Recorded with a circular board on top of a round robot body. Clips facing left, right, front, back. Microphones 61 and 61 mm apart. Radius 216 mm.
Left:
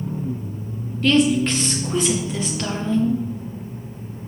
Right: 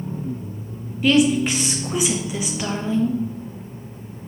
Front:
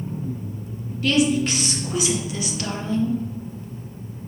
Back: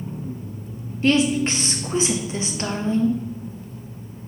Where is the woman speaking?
160° right, 0.7 m.